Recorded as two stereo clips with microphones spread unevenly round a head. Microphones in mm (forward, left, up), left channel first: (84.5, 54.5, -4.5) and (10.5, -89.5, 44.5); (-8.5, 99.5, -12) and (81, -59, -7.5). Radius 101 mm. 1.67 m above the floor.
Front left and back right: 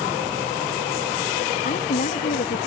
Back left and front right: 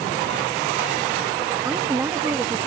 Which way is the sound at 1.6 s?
15° left.